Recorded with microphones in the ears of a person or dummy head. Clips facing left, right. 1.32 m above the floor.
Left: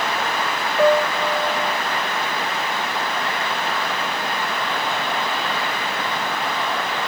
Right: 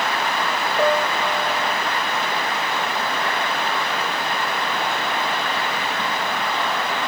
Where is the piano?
Centre (ahead or behind), 1.3 m.